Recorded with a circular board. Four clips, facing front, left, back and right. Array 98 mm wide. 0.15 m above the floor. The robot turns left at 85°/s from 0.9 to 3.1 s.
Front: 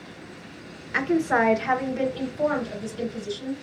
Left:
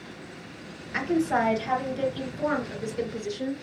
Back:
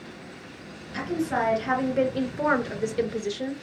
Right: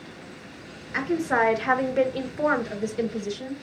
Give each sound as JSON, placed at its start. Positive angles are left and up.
{"t": 0.9, "sound": "a woman speaking", "azimuth_deg": -10, "distance_m": 2.5}